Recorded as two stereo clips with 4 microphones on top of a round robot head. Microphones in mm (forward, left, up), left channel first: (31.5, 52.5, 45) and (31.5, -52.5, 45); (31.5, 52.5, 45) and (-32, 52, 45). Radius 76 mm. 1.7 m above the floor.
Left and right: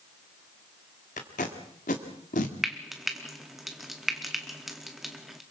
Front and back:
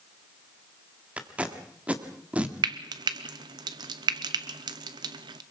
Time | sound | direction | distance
1.2 | tape being pulled | 115° left | 1.8 m
2.6 | frying | straight behind | 1.0 m